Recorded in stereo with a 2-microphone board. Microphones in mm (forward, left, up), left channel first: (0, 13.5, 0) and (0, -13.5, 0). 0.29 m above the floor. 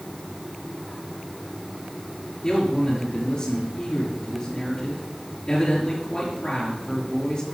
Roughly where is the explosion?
No explosion in this recording.